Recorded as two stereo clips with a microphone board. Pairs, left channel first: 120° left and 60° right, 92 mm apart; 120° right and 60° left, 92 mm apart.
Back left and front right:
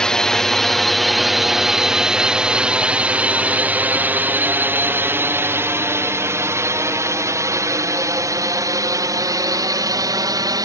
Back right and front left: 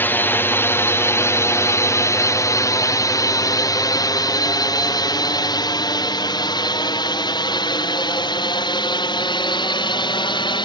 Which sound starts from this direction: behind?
A drone, at 0.0 s.